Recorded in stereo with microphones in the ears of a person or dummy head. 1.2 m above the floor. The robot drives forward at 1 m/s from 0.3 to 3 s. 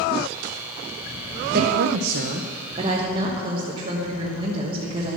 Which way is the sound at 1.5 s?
55° right (ahead or behind).